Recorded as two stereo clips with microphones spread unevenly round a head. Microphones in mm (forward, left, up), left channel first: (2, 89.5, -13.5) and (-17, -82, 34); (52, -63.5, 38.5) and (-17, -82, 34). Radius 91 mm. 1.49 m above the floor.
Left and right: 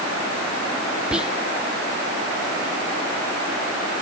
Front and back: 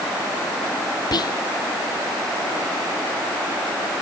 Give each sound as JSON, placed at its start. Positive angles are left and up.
{"t": 1.1, "sound": "whispering", "azimuth_deg": -10}